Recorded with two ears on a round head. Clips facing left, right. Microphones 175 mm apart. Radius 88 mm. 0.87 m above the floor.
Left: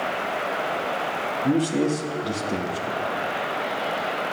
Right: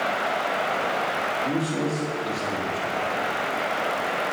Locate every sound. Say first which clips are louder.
1.4 s a man speaking: left 6 dB; 35° left (ahead or behind), 0.9 m